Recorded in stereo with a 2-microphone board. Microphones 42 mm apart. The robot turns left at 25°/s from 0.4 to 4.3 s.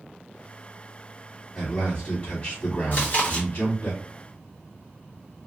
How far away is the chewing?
About 1.0 m.